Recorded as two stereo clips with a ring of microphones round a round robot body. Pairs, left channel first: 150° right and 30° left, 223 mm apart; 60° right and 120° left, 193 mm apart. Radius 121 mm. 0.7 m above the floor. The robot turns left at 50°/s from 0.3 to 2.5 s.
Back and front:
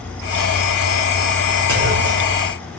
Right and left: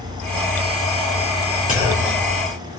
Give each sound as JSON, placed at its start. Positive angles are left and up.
{"t": 1.7, "sound": "a clunk", "azimuth_deg": -5, "distance_m": 3.5}